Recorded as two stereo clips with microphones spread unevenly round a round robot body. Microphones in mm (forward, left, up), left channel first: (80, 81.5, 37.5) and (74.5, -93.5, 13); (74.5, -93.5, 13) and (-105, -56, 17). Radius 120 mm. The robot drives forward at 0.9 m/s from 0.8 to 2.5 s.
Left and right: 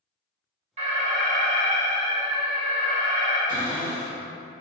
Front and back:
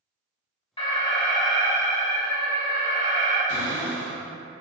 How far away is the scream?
I don't hear a scream.